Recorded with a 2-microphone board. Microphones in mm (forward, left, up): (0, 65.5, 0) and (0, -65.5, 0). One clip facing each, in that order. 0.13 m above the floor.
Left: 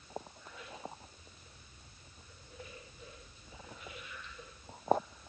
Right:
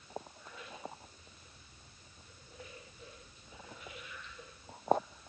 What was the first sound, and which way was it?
Only background noise.